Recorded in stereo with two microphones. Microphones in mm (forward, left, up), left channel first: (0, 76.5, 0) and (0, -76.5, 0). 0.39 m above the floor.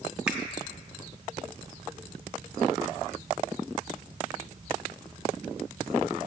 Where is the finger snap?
10° right (ahead or behind), 1.3 m.